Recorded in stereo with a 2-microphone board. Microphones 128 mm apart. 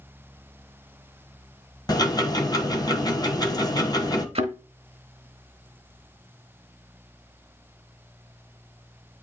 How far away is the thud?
About 1.1 m.